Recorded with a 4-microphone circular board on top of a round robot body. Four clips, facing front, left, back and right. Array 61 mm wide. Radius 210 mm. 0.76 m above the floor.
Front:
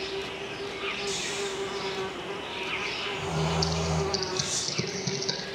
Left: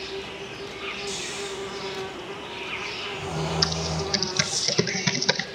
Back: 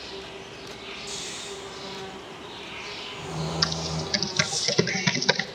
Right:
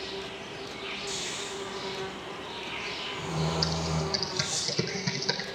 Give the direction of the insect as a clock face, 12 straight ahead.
11 o'clock.